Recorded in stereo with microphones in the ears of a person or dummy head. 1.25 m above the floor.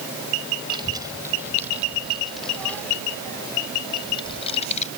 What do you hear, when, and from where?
0.7 s a child speaking: 25° right (ahead or behind); by 4.9 s 40° left (ahead or behind)